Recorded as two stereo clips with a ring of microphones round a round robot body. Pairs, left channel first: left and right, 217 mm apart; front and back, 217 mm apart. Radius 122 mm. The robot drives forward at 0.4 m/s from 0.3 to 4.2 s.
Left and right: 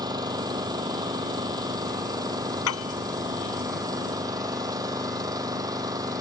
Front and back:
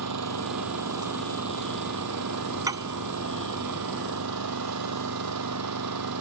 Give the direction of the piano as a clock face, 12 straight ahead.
8 o'clock.